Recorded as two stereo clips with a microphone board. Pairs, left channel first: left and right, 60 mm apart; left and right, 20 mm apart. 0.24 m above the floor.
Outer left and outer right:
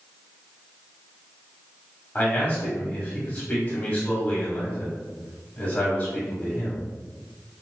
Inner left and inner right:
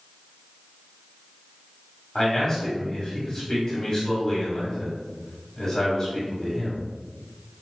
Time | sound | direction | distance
2.1 | a man speaking | 25° left (ahead or behind) | 1.3 m